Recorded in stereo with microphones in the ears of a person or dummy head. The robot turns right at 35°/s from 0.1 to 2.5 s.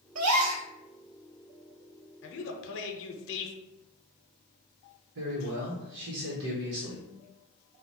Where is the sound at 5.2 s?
65° right (ahead or behind), 1.1 m.